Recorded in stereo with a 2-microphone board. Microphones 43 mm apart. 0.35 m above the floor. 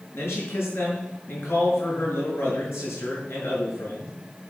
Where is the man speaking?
70° left (ahead or behind), 6.5 m.